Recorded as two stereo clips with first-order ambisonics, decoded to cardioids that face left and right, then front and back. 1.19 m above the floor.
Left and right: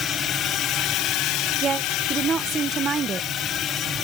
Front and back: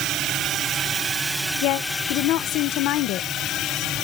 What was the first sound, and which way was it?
A drone, 145° left.